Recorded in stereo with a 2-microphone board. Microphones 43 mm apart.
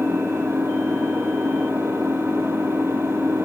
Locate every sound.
0.0 s an engine running: 65° right (ahead or behind), 3 m